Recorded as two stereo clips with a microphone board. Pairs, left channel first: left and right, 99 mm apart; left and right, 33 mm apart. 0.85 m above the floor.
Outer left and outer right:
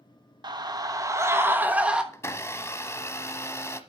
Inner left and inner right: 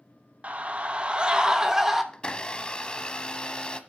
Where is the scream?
50° right (ahead or behind), 1.2 m; by 2.0 s 10° right (ahead or behind), 1.3 m.